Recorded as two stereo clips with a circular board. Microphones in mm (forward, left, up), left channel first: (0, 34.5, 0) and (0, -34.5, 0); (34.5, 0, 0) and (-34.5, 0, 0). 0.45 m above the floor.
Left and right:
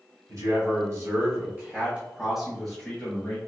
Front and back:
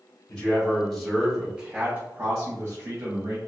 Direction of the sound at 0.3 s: 75° right.